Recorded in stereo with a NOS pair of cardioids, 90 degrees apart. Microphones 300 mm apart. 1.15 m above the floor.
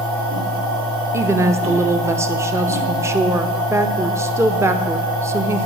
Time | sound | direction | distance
0.0 | a machine running | 65° right | 3 m
1.1 | a woman speaking | 10° right | 0.7 m